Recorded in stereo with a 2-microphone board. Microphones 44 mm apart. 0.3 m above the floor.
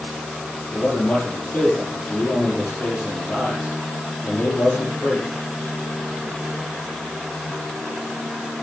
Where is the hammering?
I don't hear hammering.